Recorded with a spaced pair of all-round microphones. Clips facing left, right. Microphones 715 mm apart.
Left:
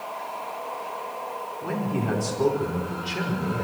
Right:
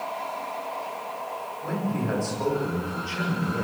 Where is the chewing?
No chewing in this recording.